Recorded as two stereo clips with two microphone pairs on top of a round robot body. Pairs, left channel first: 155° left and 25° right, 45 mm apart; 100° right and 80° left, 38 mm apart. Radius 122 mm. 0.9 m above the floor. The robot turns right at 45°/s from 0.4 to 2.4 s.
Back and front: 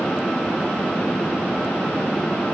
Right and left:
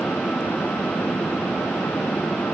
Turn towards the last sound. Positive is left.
No sound to turn to.